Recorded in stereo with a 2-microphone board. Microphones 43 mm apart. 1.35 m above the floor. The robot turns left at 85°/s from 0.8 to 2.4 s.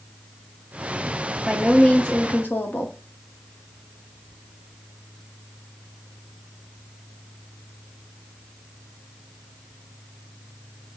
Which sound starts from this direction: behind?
A woman speaking, at 1.4 s.